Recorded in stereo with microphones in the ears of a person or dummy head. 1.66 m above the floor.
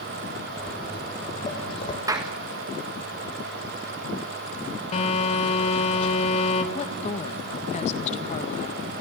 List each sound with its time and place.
0.6 s footsteps: 20° left (ahead or behind), 6 m; by 2.0 s 40° left (ahead or behind), 5 m
2.1 s a clap: 20° right (ahead or behind), 1.5 m
4.9 s a phone buzzing: 45° left (ahead or behind), 3.5 m
6.7 s a woman speaking: 45° left (ahead or behind), 1.7 m